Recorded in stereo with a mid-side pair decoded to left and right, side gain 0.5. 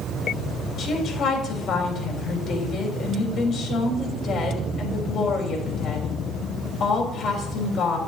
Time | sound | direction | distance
0.8 | a woman speaking | 60° left | 3 m